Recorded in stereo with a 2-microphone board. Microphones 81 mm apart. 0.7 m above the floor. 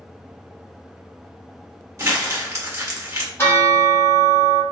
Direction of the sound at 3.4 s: 30° left (ahead or behind).